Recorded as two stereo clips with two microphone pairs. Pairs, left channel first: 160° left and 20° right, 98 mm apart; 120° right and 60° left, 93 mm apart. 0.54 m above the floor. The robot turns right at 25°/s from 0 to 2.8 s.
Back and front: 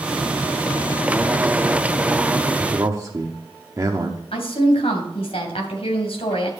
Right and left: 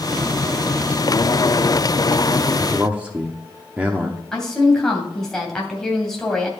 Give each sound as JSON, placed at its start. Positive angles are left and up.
{"t": 2.6, "sound": "a man speaking", "azimuth_deg": -5, "distance_m": 0.9}
{"t": 4.3, "sound": "a woman speaking", "azimuth_deg": 155, "distance_m": 2.5}